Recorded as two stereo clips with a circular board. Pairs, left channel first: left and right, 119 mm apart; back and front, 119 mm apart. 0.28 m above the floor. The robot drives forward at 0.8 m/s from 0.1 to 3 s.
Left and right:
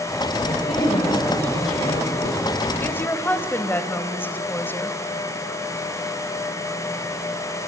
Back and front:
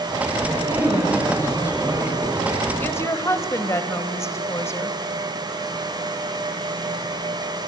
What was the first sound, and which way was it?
A man speaking, 65° left.